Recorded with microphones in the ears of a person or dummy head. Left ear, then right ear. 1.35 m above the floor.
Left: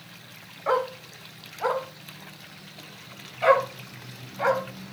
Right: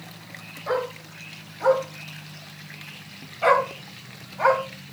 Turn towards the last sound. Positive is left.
turn(degrees=-10)  # may be behind; listen again after turning